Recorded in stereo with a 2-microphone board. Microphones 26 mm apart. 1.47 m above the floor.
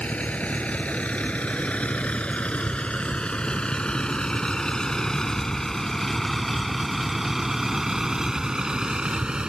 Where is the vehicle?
60° left (ahead or behind); by 9.5 s 35° right (ahead or behind).